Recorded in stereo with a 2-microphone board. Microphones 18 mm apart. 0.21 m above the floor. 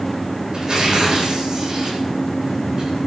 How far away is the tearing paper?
About 9 m.